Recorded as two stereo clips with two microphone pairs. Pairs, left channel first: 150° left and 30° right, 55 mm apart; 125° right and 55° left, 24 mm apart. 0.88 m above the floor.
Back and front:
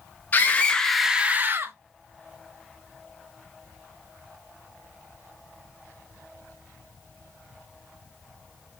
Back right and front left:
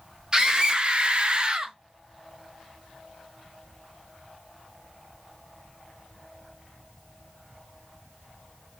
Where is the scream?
105° left, 0.9 m; by 1.8 s straight ahead, 0.9 m.